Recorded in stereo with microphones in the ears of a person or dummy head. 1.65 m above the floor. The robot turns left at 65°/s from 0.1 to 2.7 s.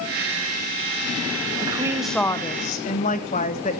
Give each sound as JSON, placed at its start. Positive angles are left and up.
{"t": 1.6, "sound": "a woman speaking", "azimuth_deg": -150, "distance_m": 1.3}